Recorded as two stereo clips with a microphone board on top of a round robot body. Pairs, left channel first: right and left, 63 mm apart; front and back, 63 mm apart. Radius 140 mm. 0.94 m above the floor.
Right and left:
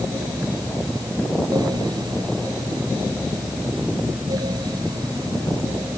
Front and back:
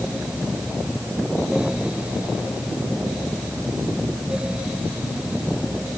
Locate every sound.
Only background noise.